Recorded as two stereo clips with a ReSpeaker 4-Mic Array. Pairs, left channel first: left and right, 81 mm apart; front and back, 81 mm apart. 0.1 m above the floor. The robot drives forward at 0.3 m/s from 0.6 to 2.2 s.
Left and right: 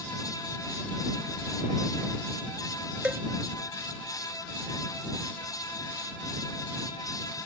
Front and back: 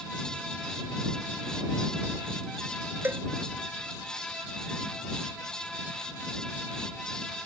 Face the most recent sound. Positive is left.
turn(degrees=-150)